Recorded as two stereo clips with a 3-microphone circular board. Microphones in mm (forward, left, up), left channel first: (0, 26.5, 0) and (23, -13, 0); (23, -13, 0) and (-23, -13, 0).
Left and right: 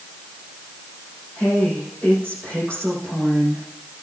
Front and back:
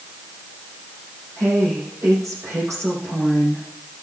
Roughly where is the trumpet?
I don't hear a trumpet.